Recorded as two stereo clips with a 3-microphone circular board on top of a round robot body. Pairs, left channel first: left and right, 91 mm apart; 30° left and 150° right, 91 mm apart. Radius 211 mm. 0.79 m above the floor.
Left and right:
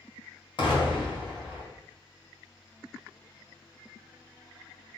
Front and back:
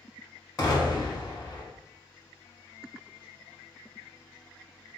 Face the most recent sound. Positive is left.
turn(degrees=75)